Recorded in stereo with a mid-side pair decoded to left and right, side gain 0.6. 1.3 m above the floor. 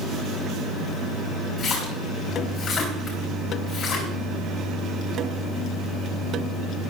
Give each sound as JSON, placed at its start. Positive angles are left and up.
{"t": 1.6, "sound": "a splash", "azimuth_deg": 50, "distance_m": 5.0}